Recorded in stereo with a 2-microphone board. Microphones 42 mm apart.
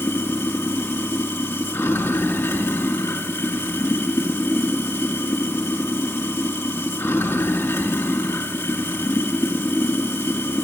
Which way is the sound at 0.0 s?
80° left.